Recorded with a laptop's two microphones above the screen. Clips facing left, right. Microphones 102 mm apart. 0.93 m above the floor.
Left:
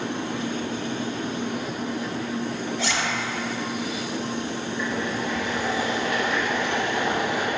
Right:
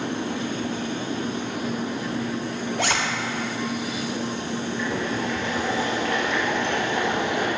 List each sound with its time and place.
2.8 s a zipper: 50° right (ahead or behind), 0.8 m
4.8 s boiling: 10° left (ahead or behind), 1.4 m